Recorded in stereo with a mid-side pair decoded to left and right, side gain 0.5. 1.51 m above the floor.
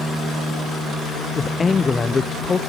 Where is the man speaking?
35° left, 0.8 m.